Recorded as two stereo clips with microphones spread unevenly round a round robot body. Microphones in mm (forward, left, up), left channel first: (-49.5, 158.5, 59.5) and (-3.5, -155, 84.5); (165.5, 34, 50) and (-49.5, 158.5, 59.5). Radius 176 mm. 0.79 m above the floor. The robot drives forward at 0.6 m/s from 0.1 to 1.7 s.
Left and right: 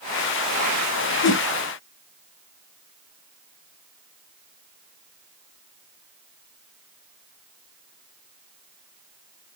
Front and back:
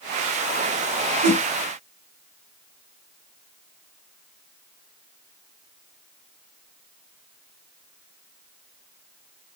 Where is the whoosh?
150° left, 0.8 m; by 1.4 s 155° left, 0.9 m.